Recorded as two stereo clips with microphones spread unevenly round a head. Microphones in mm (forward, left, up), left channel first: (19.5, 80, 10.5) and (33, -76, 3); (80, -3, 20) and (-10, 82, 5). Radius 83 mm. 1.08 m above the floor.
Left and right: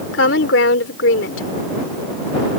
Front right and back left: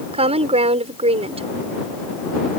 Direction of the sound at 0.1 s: 100° left.